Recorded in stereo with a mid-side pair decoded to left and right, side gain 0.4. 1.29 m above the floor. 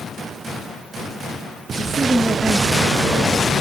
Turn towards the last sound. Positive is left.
turn(degrees=10)